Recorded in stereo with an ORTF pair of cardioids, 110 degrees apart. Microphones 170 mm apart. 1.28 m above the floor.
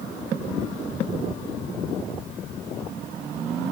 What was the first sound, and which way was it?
Only background noise.